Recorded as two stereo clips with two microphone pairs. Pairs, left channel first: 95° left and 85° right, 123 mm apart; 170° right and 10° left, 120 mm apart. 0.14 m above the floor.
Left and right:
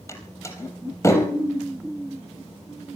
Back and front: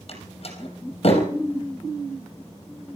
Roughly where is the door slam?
Behind.